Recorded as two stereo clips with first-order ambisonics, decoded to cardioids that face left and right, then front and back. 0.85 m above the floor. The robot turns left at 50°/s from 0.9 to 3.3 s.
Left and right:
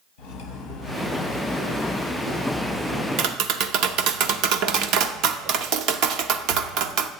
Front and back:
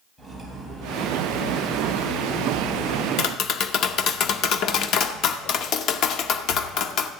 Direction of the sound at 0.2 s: 90° left.